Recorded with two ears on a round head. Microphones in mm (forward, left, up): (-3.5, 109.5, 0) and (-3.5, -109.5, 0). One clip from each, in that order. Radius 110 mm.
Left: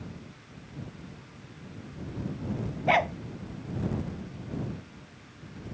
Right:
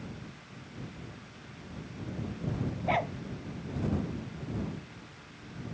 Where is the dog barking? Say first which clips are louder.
Left 6 dB; 45° left (ahead or behind).